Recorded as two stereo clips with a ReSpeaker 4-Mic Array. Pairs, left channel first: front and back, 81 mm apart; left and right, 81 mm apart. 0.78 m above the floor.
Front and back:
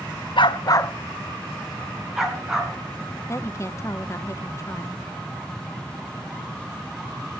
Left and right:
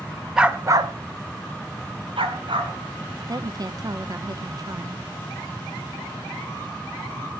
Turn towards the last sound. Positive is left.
turn(degrees=-55)